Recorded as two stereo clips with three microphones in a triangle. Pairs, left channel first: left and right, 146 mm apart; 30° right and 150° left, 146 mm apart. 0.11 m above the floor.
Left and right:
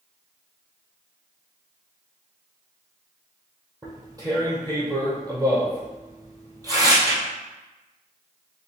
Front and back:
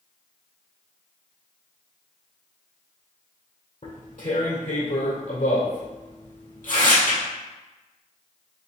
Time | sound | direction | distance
3.8 | tearing paper | 30° right | 1.9 m